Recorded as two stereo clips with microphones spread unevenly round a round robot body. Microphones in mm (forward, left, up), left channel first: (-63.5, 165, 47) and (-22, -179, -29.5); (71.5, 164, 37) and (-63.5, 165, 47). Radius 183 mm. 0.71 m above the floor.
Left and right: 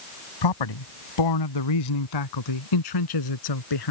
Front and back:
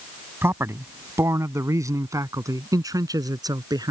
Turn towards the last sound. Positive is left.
turn(degrees=120)